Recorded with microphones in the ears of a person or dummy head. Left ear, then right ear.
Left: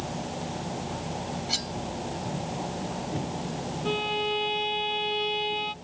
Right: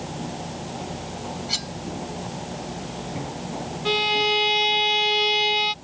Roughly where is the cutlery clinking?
Centre.